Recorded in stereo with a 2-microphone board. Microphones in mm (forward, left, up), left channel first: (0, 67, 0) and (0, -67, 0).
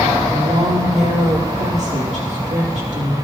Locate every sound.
0.3 s a woman speaking: 60° right (ahead or behind), 2 m